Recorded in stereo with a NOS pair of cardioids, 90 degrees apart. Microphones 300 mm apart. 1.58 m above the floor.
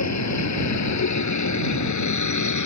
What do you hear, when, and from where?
0.0 s a vehicle: 65° left; by 2.7 s 75° left